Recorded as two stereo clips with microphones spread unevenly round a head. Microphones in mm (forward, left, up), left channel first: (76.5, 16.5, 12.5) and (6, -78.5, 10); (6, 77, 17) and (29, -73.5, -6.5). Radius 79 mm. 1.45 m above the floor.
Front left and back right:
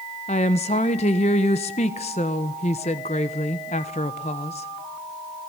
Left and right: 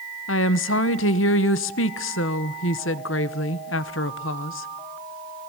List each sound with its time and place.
0.3 s a woman speaking: 105° left, 1.2 m